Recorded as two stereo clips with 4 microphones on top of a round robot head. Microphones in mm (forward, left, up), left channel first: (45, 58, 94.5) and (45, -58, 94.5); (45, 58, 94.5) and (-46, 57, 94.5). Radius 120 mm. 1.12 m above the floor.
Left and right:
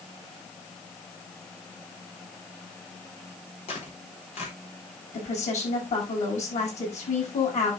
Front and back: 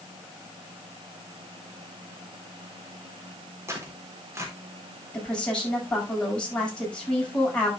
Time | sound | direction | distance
3.7 | tearing paper | 125° left | 4 m
5.1 | a woman speaking | 80° left | 8.5 m